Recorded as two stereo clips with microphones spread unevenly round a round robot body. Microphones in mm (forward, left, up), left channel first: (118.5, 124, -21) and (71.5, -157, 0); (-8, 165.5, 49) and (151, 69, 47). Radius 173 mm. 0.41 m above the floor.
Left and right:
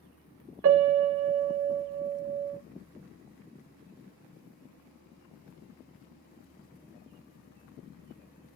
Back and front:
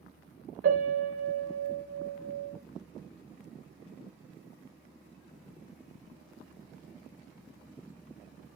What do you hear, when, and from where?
0.6 s a piano: 50° right, 0.5 m